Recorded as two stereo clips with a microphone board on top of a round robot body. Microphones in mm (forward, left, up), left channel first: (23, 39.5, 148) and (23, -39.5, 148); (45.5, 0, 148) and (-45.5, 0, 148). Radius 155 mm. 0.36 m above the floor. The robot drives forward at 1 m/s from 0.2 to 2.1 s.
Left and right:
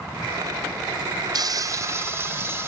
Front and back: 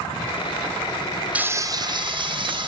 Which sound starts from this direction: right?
Frying, at 1.4 s.